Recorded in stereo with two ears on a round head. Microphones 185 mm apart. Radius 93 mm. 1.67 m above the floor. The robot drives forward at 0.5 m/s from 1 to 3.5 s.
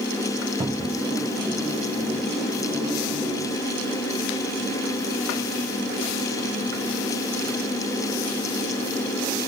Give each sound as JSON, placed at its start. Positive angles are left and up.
{"t": 0.6, "sound": "a cupboard door", "side_deg": -15, "distance_m": 0.6}